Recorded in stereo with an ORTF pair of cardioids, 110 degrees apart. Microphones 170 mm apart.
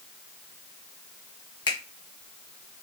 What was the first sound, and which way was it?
A finger snap, 25° left.